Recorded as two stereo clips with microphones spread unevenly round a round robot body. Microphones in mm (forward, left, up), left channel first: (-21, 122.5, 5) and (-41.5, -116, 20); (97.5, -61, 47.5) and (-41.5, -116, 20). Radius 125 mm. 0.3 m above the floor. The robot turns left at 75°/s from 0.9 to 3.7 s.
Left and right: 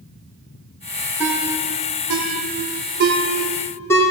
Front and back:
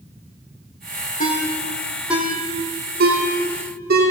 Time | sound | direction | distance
1.2 | a ringtone | 10° right | 8.5 m